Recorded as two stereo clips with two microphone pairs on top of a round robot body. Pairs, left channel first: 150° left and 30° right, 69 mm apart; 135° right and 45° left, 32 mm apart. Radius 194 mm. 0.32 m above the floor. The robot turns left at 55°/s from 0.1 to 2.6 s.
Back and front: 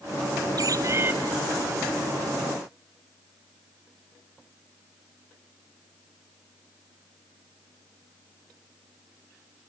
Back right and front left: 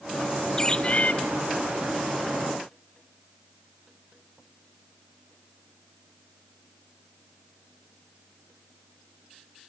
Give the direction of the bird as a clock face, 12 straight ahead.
2 o'clock.